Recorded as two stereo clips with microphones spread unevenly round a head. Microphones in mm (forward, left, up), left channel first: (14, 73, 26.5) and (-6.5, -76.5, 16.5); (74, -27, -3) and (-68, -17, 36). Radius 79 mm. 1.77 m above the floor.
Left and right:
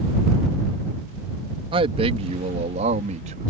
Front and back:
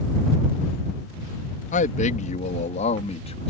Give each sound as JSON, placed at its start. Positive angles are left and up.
{"t": 1.7, "sound": "a man speaking", "azimuth_deg": -40}